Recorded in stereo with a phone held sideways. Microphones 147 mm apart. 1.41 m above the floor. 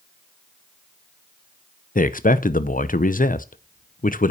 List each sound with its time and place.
1.9 s a man speaking: 70° left (ahead or behind), 0.7 m